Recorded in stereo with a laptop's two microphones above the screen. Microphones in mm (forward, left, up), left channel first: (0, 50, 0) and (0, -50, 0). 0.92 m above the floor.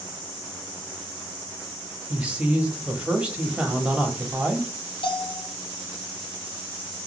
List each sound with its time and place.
2.1 s a man speaking: 10° right (ahead or behind), 0.9 m
5.0 s a bell: 60° left (ahead or behind), 0.6 m